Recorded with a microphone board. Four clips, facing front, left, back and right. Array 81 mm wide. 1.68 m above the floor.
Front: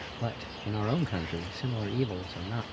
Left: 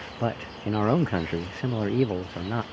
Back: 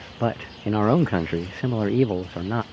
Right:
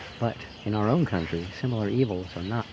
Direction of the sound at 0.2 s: 175° left.